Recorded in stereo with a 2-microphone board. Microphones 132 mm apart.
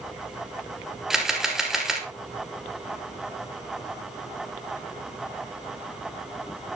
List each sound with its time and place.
1.1 s a camera shutter: 5° right (ahead or behind), 2.0 m